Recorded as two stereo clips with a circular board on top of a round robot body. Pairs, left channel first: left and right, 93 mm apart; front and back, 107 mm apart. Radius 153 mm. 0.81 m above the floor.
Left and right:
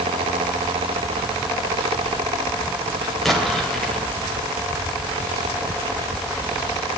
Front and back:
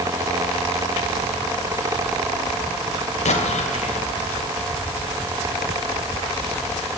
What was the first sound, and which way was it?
An explosion, straight ahead.